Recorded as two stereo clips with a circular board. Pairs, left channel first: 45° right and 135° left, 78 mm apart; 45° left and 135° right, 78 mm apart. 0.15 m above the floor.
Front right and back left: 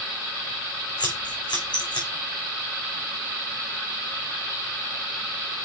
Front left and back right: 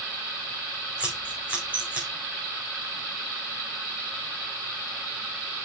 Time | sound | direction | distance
1.0 | scissors | 65° right | 4 m